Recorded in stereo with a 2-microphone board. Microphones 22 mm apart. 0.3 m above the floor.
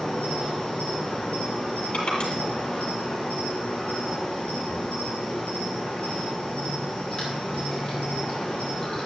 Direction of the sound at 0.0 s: 50° left (ahead or behind).